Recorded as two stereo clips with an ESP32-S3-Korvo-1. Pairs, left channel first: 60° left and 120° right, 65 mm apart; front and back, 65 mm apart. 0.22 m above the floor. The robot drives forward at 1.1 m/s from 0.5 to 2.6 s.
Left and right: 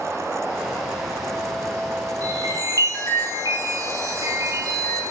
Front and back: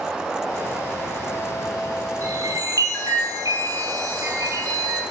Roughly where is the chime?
Behind right.